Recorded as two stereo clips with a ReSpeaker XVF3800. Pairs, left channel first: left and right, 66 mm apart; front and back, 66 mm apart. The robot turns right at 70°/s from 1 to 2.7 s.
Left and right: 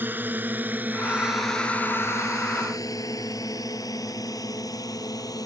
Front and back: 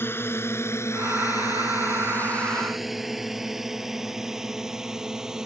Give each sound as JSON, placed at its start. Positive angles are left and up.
{"t": 0.0, "sound": "a drone", "azimuth_deg": -40}